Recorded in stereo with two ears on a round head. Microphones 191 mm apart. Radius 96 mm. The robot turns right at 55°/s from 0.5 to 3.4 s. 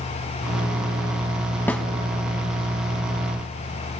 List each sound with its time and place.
1.7 s a snare drum: 10° left (ahead or behind), 0.6 m; by 1.9 s centre (ahead or behind), 0.6 m